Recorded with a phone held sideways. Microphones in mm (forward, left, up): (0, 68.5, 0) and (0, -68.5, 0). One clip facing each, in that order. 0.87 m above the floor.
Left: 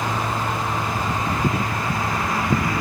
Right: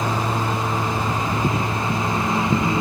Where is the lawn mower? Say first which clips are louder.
Right 2 dB; 25° right (ahead or behind).